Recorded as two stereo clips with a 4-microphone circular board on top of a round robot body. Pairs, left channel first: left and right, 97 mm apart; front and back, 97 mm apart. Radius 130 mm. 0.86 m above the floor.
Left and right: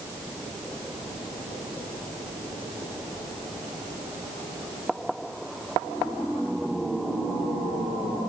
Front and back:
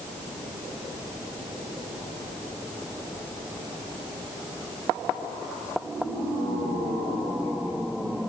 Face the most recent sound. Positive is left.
No sound to turn to.